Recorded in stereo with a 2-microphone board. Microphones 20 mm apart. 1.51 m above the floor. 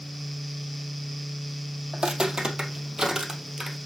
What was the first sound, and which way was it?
Footsteps, 50° right (ahead or behind).